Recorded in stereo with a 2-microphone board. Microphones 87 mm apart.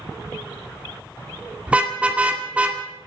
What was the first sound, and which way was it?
A car horn, 15° right (ahead or behind).